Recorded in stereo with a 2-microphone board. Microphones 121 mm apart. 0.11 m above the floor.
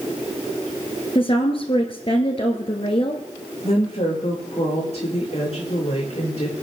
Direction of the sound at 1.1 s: 50° left (ahead or behind).